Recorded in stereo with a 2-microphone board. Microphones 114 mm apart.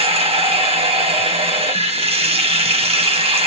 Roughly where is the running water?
Right.